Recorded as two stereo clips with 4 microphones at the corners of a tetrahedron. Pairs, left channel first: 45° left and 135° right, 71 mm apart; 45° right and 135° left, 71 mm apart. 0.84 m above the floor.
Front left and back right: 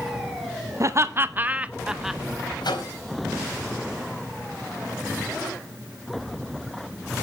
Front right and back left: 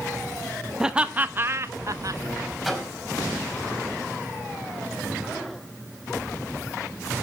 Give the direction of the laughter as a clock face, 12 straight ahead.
5 o'clock.